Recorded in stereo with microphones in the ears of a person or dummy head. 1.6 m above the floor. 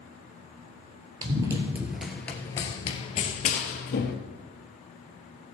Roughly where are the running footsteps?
Right.